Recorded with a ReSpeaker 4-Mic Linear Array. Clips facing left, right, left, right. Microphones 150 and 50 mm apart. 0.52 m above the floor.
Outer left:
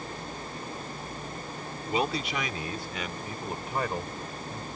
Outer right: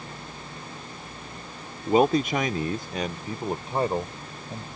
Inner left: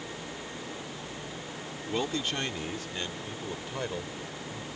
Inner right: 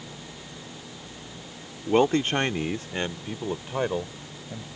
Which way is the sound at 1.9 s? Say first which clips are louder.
Outer right 9 dB, inner right 10 dB; 45° right (ahead or behind).